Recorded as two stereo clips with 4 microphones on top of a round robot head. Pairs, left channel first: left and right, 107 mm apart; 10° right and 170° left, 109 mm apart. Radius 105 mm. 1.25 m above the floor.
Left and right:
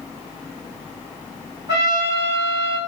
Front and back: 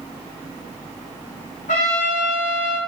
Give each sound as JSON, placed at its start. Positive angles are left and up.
{"t": 1.7, "sound": "a trumpet", "azimuth_deg": -25, "distance_m": 2.5}